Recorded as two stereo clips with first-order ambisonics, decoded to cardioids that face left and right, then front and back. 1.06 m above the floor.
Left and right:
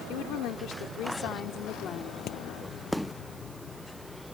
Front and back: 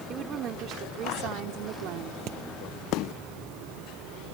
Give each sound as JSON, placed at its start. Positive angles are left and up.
{"t": 0.1, "sound": "a woman speaking", "azimuth_deg": 125}
{"t": 2.3, "sound": "hammering", "azimuth_deg": 135}